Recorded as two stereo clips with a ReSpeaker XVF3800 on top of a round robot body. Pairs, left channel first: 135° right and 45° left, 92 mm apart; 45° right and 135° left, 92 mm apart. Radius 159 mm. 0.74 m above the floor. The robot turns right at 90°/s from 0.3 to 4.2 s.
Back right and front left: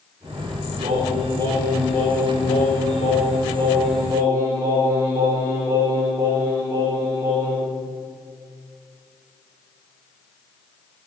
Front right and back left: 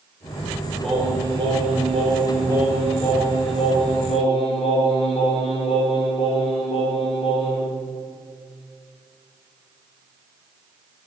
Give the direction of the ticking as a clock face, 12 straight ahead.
No ticking in this recording.